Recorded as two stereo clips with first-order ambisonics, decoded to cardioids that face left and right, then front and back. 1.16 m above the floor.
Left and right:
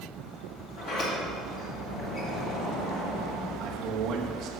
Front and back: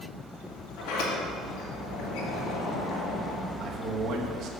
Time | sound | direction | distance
0.8 | a sliding door | 35° left | 3 m
3.6 | a man speaking | 135° right | 1.0 m